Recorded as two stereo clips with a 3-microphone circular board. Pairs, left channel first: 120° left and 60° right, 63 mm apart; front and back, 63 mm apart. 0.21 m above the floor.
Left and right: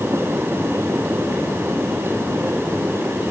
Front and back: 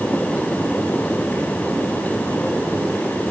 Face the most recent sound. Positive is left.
No sound to turn to.